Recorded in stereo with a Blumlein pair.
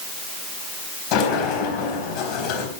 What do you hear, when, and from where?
1.1 s a sliding door: 45° left, 3 m